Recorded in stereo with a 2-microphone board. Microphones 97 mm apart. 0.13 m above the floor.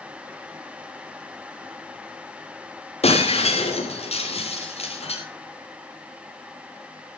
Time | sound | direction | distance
3.0 | breaking glass | 90° left | 7 m